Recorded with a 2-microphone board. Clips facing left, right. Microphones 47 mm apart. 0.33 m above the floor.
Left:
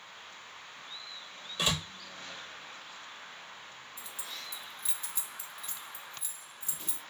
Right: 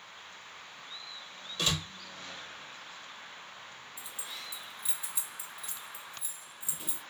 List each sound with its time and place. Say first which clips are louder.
1.6 s a door slam: left 1 dB; 20° left (ahead or behind), 0.7 m
4.0 s keys jangling: even; 15° right (ahead or behind), 0.6 m